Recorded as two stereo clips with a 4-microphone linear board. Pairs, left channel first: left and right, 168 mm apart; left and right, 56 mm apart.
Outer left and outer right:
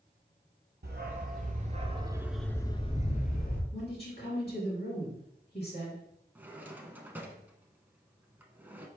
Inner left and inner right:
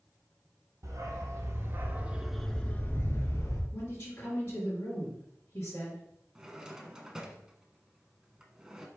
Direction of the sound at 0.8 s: 65° right (ahead or behind).